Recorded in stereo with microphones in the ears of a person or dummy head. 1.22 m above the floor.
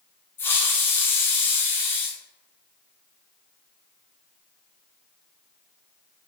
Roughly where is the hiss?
Centre.